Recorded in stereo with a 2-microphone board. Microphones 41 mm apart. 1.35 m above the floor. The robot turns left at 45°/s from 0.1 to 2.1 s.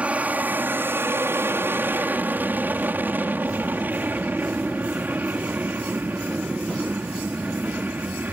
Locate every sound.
0.0 s an aircraft: 35° right; by 8.3 s 125° right